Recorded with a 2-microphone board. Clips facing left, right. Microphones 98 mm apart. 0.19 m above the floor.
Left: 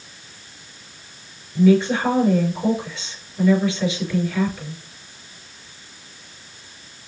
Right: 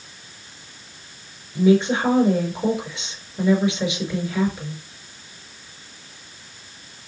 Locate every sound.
1.6 s a woman speaking: 20° right (ahead or behind), 3.5 m